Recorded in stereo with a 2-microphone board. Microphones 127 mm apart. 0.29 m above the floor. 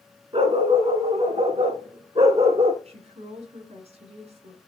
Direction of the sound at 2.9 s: 65° right (ahead or behind).